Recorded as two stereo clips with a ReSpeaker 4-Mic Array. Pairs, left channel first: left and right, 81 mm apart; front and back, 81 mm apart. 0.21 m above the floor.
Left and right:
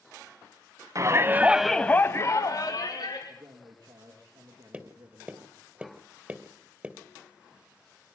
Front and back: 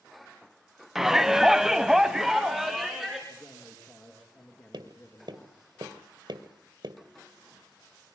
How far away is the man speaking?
About 4 m.